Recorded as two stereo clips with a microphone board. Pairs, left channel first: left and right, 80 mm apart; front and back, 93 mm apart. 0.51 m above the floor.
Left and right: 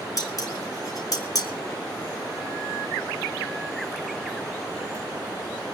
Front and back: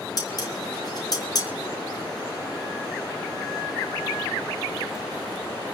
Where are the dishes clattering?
45° left, 4 m.